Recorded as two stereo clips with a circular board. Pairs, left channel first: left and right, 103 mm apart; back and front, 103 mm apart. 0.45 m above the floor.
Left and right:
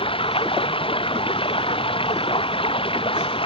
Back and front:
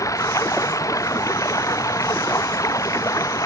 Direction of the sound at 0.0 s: 120° left.